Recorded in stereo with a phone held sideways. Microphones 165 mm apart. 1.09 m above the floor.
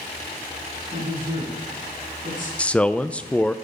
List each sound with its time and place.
0.9 s a man speaking: 60° right (ahead or behind), 9.5 m; by 2.5 s 55° right (ahead or behind), 9 m
2.6 s a man speaking: 5° left (ahead or behind), 0.6 m